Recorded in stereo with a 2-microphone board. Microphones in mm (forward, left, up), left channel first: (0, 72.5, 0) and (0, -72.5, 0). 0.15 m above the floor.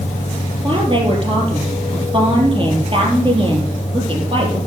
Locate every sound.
0.6 s a woman speaking: 40° right (ahead or behind), 4.5 m